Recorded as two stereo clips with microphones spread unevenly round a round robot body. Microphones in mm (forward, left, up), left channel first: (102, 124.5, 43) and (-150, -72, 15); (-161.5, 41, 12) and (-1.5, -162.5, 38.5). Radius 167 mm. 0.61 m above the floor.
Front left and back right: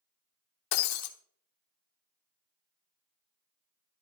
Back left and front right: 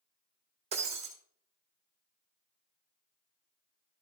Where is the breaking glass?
15° left, 1.4 m.